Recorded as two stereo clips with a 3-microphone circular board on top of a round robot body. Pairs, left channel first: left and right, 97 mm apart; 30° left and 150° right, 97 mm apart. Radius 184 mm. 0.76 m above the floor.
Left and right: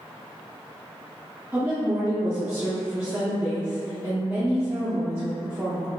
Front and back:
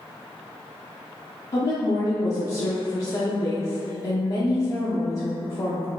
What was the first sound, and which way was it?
A woman speaking, 15° right.